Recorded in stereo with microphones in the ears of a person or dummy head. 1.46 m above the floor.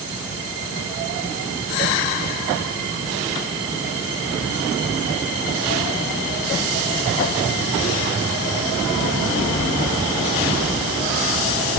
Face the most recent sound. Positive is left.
No sound to turn to.